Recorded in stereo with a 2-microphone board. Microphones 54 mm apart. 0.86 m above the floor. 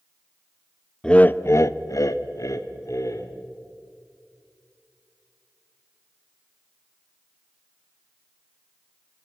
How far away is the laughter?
About 0.7 m.